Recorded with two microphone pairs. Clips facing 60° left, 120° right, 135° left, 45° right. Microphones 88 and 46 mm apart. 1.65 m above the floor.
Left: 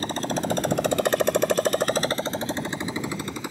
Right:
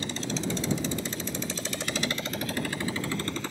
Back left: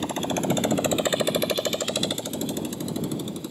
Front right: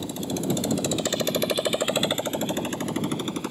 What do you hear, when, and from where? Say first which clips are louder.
0.0 s a motorcycle: left 5 dB, back left 3 dB; 105° left; by 3.5 s 15° right